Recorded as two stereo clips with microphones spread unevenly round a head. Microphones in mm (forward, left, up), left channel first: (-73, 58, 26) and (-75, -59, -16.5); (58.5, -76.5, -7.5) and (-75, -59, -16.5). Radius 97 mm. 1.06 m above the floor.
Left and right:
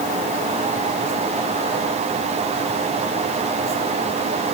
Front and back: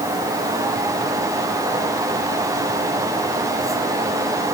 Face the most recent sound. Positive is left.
No sound to turn to.